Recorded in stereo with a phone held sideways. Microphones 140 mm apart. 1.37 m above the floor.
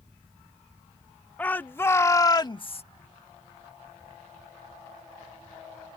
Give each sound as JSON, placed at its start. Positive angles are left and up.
{"t": 1.4, "sound": "a shout", "side_deg": 10}